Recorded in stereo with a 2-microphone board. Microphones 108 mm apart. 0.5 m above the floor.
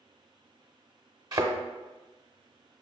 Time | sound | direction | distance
1.3 | a thud | 40° right (ahead or behind) | 0.7 m